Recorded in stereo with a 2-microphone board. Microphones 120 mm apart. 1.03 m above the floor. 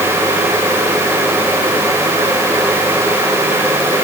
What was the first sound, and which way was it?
Only background noise.